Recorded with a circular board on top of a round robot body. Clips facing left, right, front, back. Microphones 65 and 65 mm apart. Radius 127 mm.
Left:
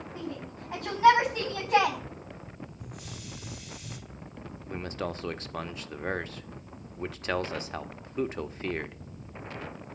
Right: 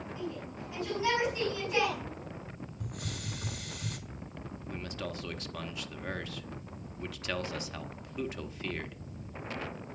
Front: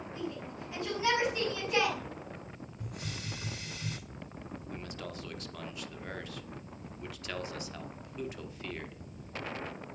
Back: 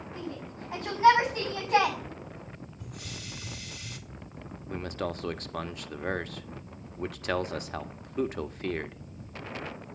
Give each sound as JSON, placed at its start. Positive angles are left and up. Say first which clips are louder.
{"t": 0.1, "sound": "a shout", "louder": "left 2 dB, even", "azimuth_deg": 130, "distance_m": 5.5}
{"t": 2.8, "sound": "a hiss", "louder": "right 3 dB, front 3 dB", "azimuth_deg": -60, "distance_m": 2.5}
{"t": 4.7, "sound": "a man speaking", "louder": "left 6 dB, back 11 dB", "azimuth_deg": 145, "distance_m": 1.5}